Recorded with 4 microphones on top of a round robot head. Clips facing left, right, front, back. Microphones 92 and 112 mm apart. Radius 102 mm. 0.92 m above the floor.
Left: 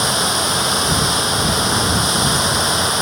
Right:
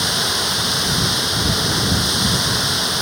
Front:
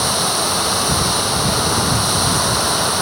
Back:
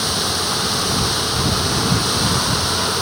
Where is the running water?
40° left.